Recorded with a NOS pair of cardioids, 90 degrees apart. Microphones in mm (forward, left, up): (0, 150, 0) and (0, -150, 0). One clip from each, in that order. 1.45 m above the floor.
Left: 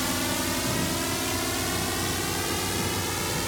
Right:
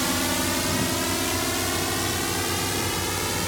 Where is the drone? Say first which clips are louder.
Right 3 dB; 25° right; by 3.5 s 20° right.